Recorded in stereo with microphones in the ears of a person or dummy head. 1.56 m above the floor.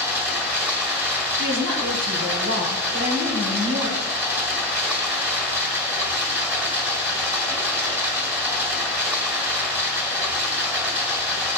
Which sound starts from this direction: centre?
Running water, at 0.0 s.